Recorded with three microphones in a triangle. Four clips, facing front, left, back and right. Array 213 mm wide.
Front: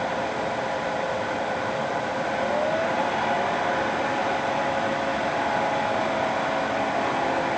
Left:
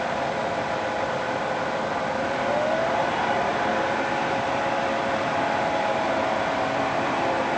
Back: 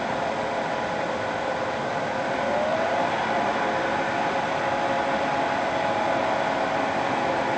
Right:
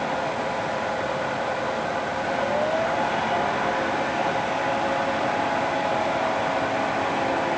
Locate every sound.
Only background noise.